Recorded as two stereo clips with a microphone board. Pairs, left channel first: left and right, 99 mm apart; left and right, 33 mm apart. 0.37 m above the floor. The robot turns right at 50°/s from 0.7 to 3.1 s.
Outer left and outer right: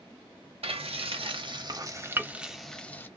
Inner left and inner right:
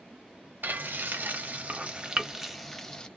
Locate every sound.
0.6 s frying: 75° right (ahead or behind), 0.6 m; by 3.1 s 25° left (ahead or behind), 0.6 m